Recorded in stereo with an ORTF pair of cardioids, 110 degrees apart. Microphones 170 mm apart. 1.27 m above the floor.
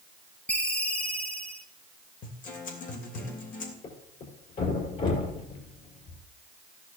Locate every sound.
0.5 s a ringtone: 5° left, 1.3 m
2.2 s a guitar: 55° left, 3 m
3.8 s a thud: 55° left, 5 m